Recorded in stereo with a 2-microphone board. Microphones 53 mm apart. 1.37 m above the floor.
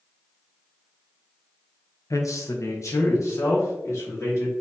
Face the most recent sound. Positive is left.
turn(degrees=70)  # may be behind; listen again after turning